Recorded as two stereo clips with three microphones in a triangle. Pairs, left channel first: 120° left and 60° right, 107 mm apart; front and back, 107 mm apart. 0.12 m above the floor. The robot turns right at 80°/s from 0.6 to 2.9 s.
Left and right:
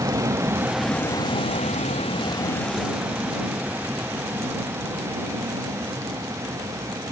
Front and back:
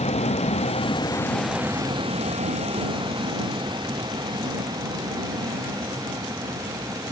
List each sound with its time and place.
0.0 s a vehicle: straight ahead; by 7.1 s 120° right